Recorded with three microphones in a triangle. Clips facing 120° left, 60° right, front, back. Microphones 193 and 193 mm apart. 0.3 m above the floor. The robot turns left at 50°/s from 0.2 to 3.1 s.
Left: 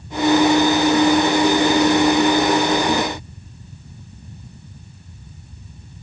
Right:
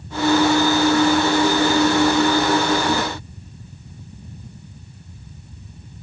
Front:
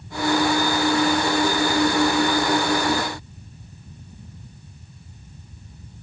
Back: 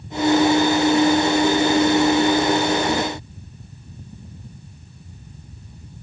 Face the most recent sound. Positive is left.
No sound to turn to.